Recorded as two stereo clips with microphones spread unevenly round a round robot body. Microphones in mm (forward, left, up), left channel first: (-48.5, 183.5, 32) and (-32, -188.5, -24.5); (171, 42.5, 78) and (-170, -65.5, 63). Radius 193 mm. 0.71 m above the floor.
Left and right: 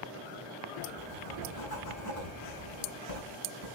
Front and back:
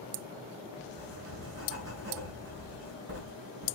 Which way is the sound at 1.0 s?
135° left.